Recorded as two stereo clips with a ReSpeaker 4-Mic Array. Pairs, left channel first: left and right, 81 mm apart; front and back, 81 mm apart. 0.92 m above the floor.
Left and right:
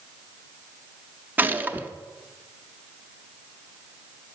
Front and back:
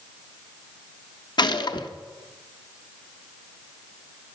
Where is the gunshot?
25° right, 0.6 m.